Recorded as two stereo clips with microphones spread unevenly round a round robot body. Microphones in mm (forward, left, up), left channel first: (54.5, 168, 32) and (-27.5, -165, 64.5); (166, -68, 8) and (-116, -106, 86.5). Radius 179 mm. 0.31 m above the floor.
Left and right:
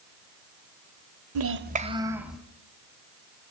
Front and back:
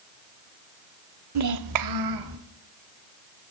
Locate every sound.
1.4 s a child speaking: 140° right, 1.1 m; by 2.4 s 165° left, 2 m